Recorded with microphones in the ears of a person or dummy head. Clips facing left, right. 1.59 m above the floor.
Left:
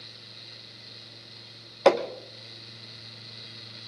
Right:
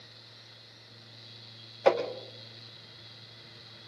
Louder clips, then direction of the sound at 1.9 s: Left 4 dB; 75° left (ahead or behind).